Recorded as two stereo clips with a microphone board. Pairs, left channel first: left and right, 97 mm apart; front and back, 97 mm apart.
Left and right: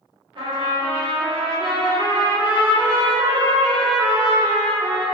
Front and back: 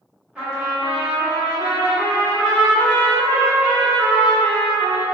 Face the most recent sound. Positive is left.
turn(degrees=-105)